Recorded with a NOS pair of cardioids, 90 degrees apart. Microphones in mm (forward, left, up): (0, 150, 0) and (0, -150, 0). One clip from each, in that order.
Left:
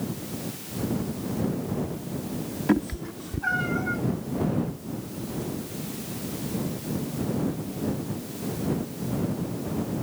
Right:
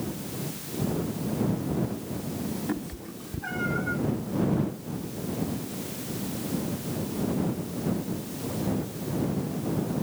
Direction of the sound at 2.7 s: 60° left.